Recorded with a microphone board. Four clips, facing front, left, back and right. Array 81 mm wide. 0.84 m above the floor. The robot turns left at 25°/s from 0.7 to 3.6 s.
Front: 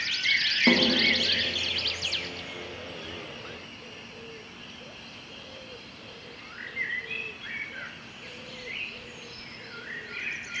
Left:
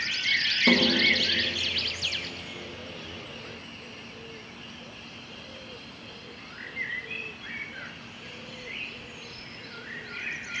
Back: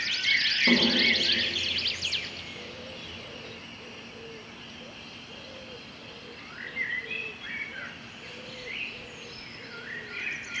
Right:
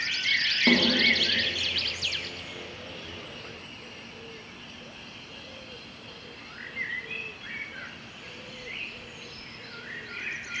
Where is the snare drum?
25° right, 1.4 m; by 0.9 s 30° right, 1.4 m.